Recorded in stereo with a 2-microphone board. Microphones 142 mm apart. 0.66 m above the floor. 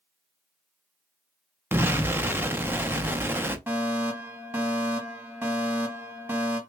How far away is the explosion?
About 0.6 m.